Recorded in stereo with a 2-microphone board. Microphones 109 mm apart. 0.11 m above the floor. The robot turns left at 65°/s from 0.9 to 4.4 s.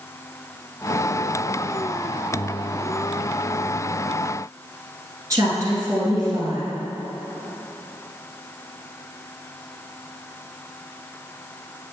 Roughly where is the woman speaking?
Right.